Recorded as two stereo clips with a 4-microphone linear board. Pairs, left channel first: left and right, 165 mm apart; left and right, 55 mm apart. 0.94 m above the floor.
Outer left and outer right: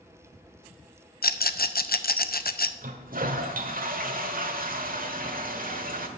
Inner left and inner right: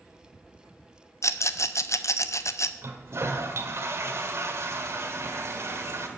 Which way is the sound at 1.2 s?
65° left (ahead or behind).